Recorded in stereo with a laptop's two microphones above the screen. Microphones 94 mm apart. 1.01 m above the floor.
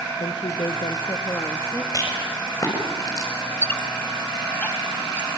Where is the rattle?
40° left (ahead or behind), 6 m.